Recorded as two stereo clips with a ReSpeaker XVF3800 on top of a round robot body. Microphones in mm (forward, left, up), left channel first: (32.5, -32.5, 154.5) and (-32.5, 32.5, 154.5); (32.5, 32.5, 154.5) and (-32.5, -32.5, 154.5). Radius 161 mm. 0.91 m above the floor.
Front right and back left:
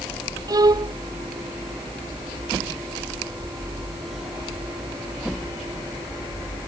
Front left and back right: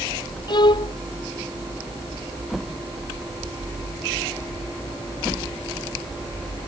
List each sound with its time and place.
0.5 s a violin: 85° left